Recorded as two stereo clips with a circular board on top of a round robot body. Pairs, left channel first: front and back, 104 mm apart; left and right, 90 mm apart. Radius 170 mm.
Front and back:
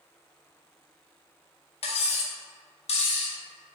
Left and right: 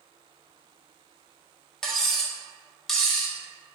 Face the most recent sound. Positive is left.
turn(degrees=5)